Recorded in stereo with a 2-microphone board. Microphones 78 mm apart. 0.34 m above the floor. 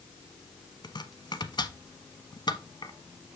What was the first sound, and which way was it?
Chopping, 70° left (ahead or behind).